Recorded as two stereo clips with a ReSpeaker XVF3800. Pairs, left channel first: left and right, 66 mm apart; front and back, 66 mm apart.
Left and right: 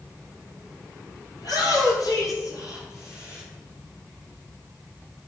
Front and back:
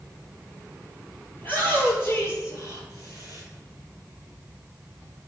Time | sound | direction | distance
1.4 | a shout | 65° left | 6 m